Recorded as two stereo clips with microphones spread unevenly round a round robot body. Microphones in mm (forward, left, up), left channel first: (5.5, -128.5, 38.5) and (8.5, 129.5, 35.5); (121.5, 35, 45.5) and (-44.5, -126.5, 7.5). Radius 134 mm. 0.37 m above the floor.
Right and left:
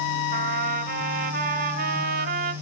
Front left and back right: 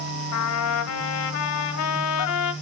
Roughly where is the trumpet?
Ahead left.